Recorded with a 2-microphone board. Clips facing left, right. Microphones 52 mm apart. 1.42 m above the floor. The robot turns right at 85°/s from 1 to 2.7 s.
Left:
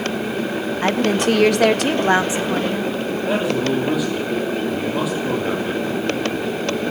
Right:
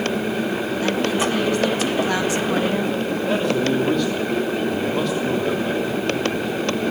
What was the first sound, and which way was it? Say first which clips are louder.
A woman speaking: left 4 dB; 50° left.